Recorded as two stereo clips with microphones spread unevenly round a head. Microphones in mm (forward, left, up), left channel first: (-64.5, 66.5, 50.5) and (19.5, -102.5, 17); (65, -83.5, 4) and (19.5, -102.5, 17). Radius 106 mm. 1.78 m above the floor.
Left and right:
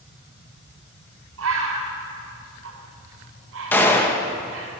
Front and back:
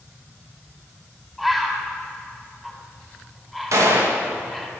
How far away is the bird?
About 5.5 m.